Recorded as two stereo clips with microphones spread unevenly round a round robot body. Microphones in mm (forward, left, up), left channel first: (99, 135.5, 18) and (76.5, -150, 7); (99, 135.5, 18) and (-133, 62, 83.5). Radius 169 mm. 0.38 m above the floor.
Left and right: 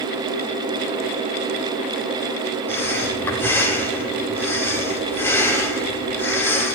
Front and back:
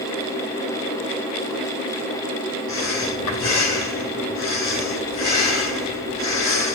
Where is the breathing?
5° left, 6.5 m.